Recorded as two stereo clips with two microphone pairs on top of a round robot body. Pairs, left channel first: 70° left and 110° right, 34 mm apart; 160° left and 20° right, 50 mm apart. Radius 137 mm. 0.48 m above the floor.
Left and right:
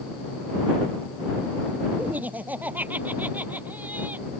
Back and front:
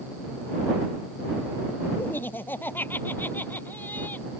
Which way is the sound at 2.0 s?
155° right.